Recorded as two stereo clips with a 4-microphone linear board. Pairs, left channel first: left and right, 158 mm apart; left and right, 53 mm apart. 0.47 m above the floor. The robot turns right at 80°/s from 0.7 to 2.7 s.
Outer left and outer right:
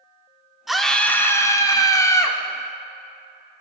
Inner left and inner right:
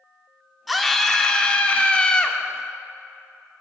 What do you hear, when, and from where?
0.7 s a scream: centre (ahead or behind), 0.8 m; by 2.4 s 15° left (ahead or behind), 0.8 m